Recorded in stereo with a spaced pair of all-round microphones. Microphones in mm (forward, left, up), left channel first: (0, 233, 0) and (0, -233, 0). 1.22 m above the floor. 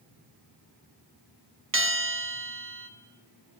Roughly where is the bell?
Right.